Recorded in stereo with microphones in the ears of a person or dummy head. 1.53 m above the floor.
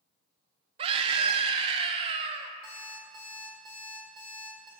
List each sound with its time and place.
0.8 s a scream: 30° right (ahead or behind), 0.6 m
2.6 s an alarm clock: 25° right (ahead or behind), 2 m